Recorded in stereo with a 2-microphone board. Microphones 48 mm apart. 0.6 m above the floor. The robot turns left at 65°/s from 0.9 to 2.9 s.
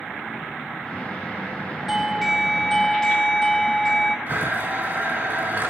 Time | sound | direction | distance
1.9 | a doorbell | 10° right (ahead or behind) | 1.0 m
4.3 | a blender | 45° right (ahead or behind) | 5.5 m